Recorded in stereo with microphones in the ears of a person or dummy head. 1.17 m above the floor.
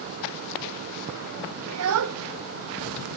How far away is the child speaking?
About 0.7 m.